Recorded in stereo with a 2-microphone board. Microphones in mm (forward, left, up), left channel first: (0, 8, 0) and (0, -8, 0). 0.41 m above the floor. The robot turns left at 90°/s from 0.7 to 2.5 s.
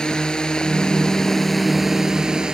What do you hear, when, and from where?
0.0 s a drone: 80° left; by 2.5 s 70° right (ahead or behind)